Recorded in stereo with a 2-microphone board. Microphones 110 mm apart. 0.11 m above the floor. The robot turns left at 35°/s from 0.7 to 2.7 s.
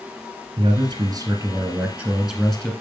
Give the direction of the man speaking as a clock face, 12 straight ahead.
4 o'clock.